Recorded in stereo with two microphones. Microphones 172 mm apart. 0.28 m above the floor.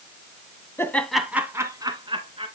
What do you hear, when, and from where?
0.8 s laughter: 15° left (ahead or behind), 2.0 m; by 2.5 s 35° right (ahead or behind), 3.5 m